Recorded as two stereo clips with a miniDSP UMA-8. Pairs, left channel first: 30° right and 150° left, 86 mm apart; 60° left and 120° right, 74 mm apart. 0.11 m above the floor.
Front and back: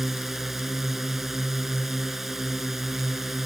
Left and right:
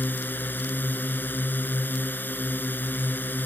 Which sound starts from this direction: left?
A drone, at 0.0 s.